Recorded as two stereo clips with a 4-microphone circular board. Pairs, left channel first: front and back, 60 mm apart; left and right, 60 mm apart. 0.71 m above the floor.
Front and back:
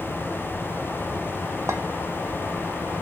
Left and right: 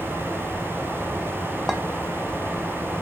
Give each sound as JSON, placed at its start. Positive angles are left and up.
{"t": 1.7, "sound": "a clink", "azimuth_deg": 175, "distance_m": 0.5}